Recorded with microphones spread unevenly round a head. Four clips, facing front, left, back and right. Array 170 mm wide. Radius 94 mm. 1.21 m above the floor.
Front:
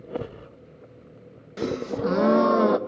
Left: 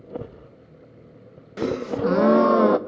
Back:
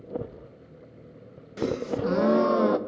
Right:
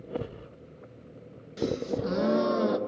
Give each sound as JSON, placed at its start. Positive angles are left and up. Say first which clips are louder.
{"t": 1.6, "sound": "a gasp", "louder": "left 5 dB, front 1 dB", "azimuth_deg": 60, "distance_m": 0.9}